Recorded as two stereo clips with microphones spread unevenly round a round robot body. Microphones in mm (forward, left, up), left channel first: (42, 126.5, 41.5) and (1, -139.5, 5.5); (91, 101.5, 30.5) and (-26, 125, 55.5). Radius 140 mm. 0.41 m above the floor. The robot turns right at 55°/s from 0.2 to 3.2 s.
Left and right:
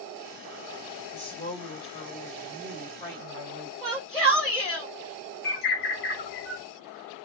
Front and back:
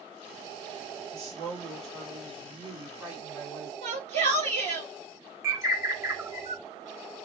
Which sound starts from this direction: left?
A bird, at 5.4 s.